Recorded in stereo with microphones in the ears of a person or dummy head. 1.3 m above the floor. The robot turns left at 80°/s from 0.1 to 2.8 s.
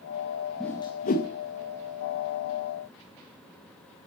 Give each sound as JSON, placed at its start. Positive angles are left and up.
{"t": 0.6, "sound": "a whoosh", "side_deg": 5, "distance_m": 1.6}